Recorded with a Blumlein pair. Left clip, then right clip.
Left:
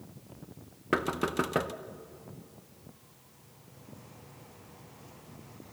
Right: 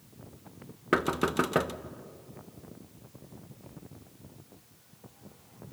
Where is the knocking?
5° right, 0.8 m.